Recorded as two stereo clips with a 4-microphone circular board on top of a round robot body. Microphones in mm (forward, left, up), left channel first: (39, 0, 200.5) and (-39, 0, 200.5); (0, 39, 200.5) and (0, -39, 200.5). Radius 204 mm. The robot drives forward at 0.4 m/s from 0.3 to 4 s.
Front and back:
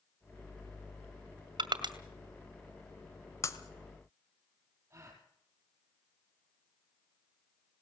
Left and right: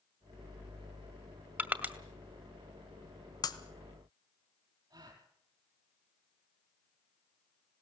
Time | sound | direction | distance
1.6 | crushing | 155° right | 1.8 m
3.4 | breaking glass | 50° left | 1.3 m
4.9 | a gasp | 125° right | 4 m